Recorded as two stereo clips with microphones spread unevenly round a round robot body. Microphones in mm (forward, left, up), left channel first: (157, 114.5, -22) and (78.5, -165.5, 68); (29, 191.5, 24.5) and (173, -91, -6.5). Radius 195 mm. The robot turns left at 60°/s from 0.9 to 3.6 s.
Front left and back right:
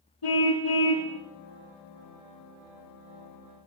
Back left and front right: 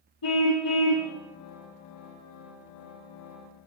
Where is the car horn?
95° left, 9.5 m; by 1.1 s 85° left, 9.5 m.